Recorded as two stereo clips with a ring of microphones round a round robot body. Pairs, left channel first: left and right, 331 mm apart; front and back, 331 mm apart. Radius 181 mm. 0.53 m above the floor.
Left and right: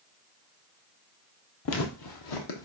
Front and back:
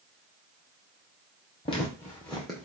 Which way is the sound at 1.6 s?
65° left.